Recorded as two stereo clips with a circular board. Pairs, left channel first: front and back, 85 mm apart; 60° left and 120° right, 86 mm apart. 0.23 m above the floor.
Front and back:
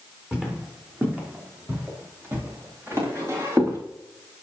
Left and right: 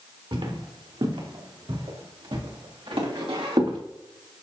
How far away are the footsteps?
About 3.5 m.